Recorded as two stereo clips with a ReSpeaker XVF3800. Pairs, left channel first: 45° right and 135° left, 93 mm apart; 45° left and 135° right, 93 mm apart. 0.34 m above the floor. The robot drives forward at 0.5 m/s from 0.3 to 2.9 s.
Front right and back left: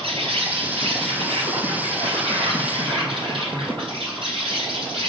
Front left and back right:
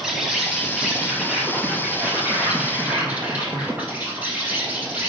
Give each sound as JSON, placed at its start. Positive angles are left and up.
{"t": 0.0, "sound": "an insect", "azimuth_deg": 140, "distance_m": 3.0}